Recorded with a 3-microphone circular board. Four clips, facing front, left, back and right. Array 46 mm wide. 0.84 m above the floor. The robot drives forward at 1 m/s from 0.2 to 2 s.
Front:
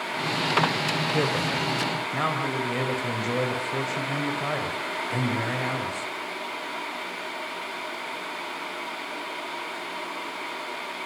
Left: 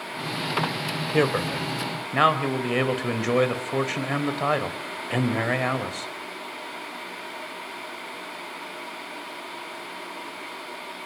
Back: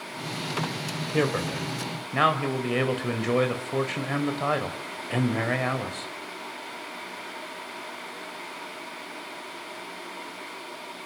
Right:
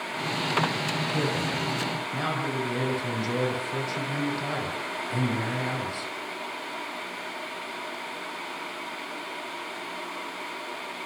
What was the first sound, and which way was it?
A man speaking, 105° left.